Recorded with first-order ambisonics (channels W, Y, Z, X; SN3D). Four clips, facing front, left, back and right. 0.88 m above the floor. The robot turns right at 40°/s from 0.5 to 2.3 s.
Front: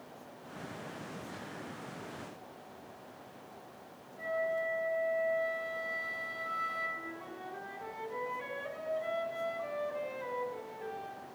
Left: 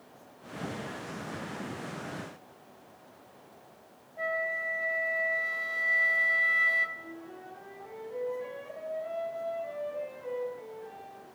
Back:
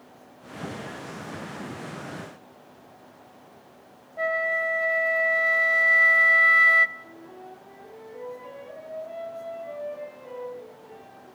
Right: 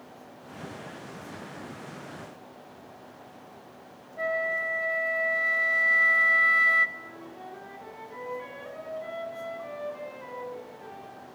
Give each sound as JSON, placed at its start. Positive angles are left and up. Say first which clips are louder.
{"t": 4.2, "sound": "a flute", "louder": "right 3 dB, back 9 dB", "azimuth_deg": -165, "distance_m": 1.2}
{"t": 7.0, "sound": "a flute", "louder": "right 2 dB, front 1 dB", "azimuth_deg": -40, "distance_m": 9.0}